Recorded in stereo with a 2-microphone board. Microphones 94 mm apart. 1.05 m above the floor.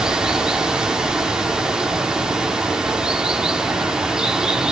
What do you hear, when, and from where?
0.0 s running water: 10° right (ahead or behind), 2 m